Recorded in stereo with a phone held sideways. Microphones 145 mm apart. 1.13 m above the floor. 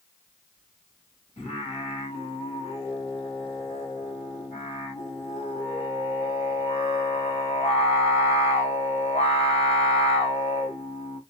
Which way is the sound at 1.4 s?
45° left (ahead or behind).